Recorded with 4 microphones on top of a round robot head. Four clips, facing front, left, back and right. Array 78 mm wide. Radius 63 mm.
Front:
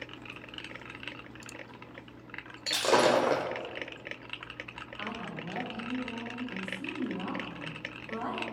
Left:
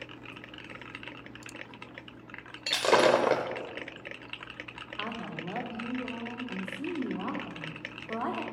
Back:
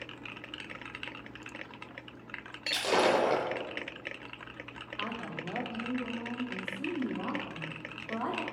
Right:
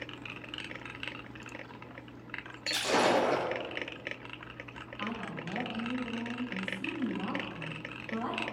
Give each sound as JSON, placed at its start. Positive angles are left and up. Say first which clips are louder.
{"t": 2.7, "sound": "breaking glass", "louder": "left 5 dB, front 2 dB", "azimuth_deg": 75, "distance_m": 1.2}
{"t": 5.0, "sound": "a woman speaking", "louder": "left 1 dB, back 1 dB", "azimuth_deg": 115, "distance_m": 2.5}